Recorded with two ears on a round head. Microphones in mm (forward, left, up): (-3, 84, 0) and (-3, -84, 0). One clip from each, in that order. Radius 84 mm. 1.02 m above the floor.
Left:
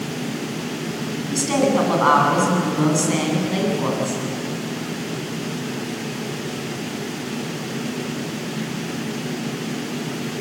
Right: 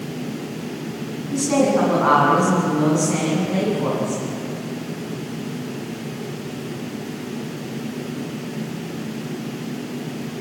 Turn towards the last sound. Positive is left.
turn(degrees=85)